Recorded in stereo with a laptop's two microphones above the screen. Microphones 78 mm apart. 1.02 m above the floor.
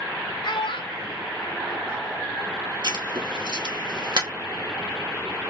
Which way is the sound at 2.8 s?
65° right (ahead or behind).